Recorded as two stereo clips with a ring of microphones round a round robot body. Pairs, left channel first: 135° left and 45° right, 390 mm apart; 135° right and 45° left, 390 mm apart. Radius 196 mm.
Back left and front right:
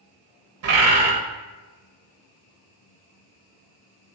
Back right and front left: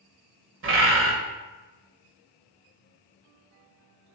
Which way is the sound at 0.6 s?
5° right.